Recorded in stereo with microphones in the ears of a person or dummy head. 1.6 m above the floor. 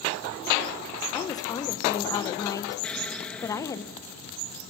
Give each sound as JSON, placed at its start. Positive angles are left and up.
{"t": 1.1, "sound": "a woman speaking", "side_deg": 20, "distance_m": 1.6}
{"t": 2.8, "sound": "an explosion", "side_deg": 5, "distance_m": 1.7}